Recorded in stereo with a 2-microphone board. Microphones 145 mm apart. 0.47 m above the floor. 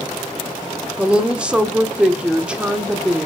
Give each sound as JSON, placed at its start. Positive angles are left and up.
{"t": 1.0, "sound": "a woman speaking", "side_deg": -5, "distance_m": 0.8}